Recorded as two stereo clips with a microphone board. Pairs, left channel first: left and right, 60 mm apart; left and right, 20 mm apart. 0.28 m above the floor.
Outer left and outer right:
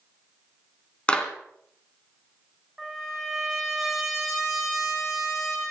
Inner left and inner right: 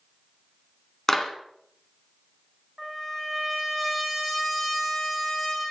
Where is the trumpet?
Centre (ahead or behind), 9.5 m.